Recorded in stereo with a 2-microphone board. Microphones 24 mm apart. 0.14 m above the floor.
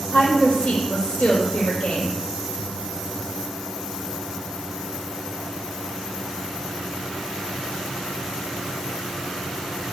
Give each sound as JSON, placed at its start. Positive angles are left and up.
{"t": 0.1, "sound": "a woman speaking", "side_deg": 70, "distance_m": 4.5}